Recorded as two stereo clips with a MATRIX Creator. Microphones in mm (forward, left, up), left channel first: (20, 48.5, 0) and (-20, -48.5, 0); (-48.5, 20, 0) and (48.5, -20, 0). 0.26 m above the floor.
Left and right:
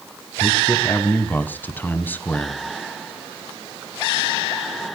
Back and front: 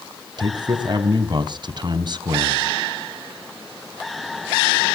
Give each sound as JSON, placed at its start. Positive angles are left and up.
{"t": 0.4, "sound": "a man speaking", "azimuth_deg": 0, "distance_m": 1.6}